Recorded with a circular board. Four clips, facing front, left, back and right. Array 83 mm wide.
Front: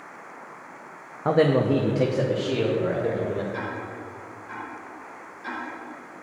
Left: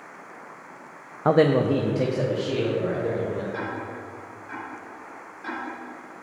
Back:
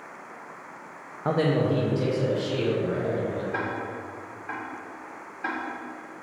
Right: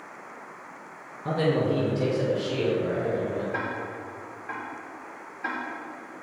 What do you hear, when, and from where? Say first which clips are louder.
1.2 s a man speaking: left 6 dB, front 4 dB; 85° left, 0.5 m; by 3.4 s 15° left, 3 m
3.5 s ticking: even, back 2 dB; 155° right, 3.5 m